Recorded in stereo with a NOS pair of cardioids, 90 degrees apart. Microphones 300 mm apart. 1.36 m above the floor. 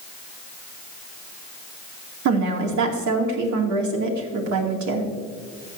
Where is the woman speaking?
70° right, 2.5 m.